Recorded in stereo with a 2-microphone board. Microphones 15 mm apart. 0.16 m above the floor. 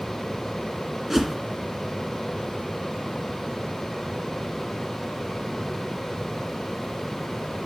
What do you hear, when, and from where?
1.1 s a whoosh: 20° right (ahead or behind), 2 m